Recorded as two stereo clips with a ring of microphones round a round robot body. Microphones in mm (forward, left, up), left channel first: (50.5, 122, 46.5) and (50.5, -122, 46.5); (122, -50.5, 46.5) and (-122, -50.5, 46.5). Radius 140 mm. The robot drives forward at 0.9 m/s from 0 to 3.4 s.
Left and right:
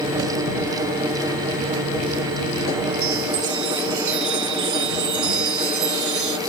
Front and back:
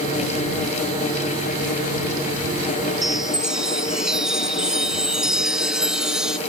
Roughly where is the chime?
Right.